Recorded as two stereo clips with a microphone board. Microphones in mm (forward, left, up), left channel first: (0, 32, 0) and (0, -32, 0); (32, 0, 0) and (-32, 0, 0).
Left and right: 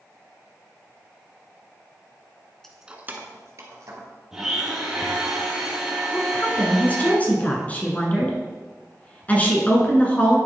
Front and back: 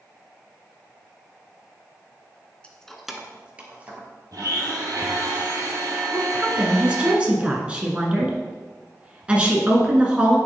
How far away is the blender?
About 2 m.